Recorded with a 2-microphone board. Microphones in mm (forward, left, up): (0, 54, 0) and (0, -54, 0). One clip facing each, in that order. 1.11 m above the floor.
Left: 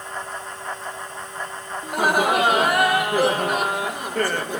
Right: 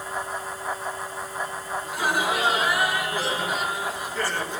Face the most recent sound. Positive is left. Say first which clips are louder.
# left 6 dB
turn(degrees=55)  # may be behind; listen again after turning